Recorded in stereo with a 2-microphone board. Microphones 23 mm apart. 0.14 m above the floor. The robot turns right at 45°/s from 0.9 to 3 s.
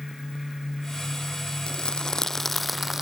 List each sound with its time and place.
1.7 s crumpling: 130° left; by 3.0 s 170° right